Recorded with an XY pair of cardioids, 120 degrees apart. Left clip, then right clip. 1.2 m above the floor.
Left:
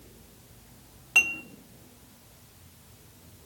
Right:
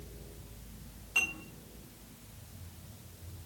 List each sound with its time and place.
1.1 s dishes clattering: 65° left, 1.6 m